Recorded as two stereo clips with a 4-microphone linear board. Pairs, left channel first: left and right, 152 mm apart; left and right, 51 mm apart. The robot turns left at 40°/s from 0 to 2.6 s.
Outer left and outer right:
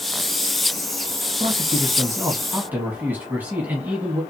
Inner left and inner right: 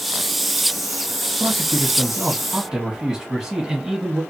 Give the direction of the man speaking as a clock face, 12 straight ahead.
4 o'clock.